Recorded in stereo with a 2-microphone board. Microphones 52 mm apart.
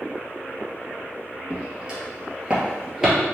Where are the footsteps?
20° right (ahead or behind), 1.8 m; by 3.1 s 15° right (ahead or behind), 1.6 m.